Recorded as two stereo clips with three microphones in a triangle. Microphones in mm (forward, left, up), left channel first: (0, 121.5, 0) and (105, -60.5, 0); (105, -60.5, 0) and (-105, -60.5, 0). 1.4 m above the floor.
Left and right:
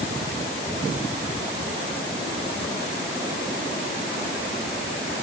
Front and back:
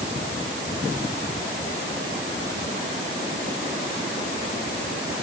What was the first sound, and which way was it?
Only background noise.